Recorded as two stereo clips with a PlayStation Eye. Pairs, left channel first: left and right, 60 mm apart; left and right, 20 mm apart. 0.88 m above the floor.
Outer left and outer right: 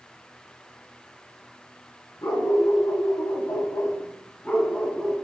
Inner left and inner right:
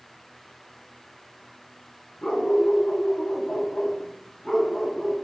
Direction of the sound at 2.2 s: 65° left (ahead or behind).